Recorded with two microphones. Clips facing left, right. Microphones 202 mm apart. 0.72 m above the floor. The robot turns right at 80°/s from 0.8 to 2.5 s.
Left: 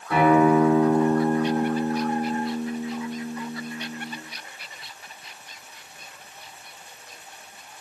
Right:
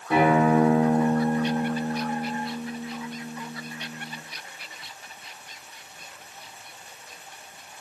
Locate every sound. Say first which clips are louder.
0.1 s a guitar: left 2 dB; 20° right, 1.1 m; by 4.2 s 115° left, 1.1 m